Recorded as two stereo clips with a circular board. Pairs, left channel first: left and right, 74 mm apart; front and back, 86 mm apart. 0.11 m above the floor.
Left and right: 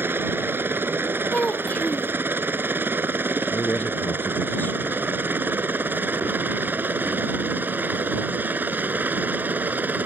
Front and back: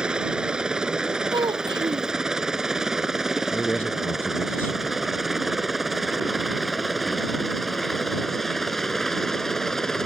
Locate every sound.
0.0 s a helicopter: 110° right; by 10.1 s 80° right
1.3 s a child speaking: 160° left
3.5 s a man speaking: 50° left